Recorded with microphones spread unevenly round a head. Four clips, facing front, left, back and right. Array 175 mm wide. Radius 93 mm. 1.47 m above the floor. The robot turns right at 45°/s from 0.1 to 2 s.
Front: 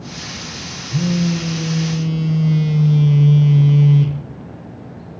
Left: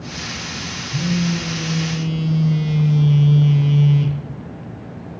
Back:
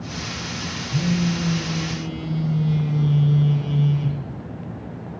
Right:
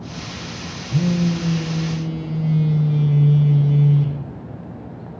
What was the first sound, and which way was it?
A phone buzzing, 55° right.